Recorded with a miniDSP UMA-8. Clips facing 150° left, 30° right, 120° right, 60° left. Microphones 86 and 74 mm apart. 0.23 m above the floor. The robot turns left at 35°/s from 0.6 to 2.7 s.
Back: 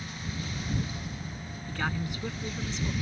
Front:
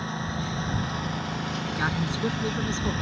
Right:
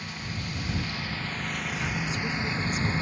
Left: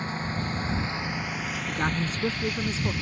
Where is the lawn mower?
5° left; by 3.0 s 65° right.